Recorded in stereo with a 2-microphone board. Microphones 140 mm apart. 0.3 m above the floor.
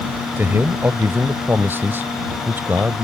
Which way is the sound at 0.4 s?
15° right (ahead or behind).